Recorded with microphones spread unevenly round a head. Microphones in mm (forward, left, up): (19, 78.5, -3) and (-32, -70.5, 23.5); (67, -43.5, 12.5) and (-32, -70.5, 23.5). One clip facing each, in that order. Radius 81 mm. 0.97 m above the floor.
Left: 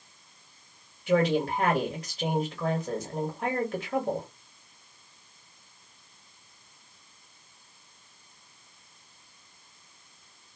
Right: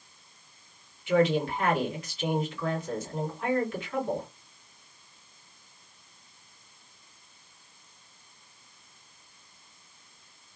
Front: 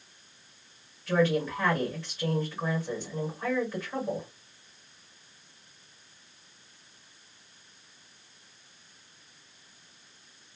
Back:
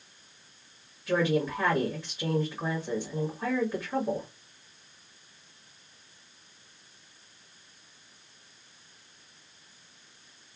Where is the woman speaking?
110° left, 1.7 m.